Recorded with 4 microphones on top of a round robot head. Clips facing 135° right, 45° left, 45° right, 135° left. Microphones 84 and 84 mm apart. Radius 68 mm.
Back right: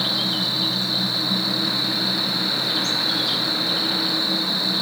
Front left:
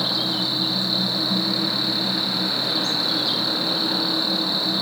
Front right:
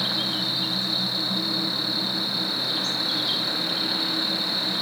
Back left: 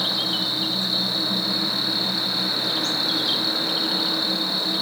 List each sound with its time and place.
0.0 s an insect: 115° left, 2.5 m